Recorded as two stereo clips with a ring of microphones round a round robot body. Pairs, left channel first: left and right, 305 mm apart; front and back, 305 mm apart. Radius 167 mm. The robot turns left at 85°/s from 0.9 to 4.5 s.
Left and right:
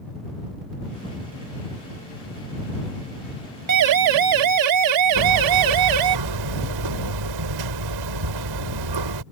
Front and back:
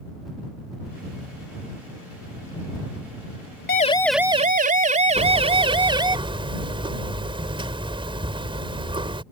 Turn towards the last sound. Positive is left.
turn(degrees=-105)